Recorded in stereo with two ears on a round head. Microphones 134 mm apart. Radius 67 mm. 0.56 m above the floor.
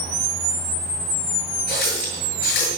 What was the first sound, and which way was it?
A running tap, 80° left.